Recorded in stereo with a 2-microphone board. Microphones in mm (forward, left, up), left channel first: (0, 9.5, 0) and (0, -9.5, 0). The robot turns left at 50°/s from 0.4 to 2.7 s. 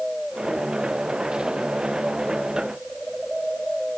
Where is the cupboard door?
I don't hear a cupboard door.